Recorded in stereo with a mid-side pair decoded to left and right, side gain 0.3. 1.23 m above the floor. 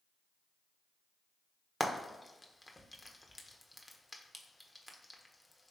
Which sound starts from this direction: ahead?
Frying, at 1.8 s.